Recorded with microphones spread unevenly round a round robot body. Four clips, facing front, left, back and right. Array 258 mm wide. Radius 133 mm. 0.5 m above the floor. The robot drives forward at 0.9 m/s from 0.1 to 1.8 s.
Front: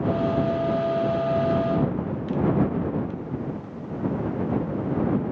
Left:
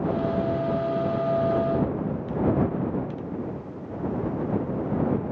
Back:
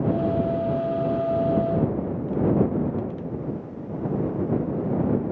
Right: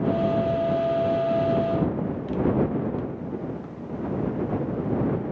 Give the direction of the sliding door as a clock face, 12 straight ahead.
No sliding door in this recording.